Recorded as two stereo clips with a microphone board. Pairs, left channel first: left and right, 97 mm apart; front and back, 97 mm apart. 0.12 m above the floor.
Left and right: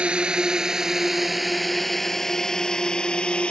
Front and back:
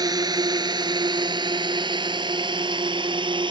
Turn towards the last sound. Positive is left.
turn(degrees=170)